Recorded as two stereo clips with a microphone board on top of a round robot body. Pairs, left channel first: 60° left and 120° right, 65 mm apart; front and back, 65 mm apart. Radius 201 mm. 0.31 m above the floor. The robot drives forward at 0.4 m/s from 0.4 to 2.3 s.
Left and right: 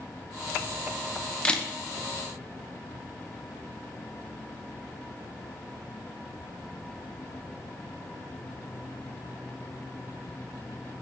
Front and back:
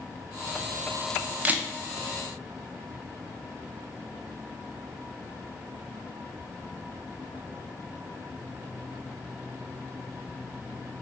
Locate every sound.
1.4 s a camera shutter: 125° left, 0.7 m; by 1.7 s 135° left, 0.7 m